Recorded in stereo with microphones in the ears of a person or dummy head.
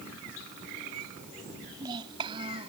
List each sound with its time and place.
1.6 s a child speaking: 25° right (ahead or behind); by 2.7 s 35° right (ahead or behind)